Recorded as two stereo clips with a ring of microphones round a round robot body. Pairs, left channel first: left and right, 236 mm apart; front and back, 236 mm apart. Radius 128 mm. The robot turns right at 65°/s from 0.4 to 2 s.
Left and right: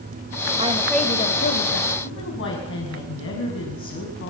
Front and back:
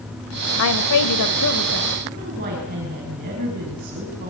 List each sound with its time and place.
0.6 s a woman speaking: 20° right, 2 m; by 1.9 s 65° left, 2 m
2.0 s a woman speaking: 120° left, 6 m